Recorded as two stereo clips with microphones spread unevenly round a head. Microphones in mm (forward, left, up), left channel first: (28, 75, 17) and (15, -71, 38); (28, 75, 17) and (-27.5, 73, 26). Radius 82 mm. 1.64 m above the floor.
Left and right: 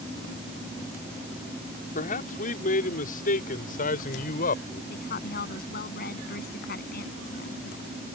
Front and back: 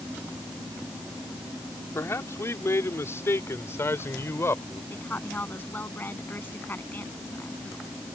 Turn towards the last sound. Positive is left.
turn(degrees=60)